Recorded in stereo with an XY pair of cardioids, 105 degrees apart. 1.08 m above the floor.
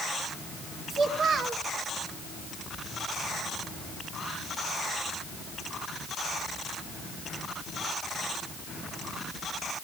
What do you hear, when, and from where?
0.9 s a child speaking: 55° right, 2.5 m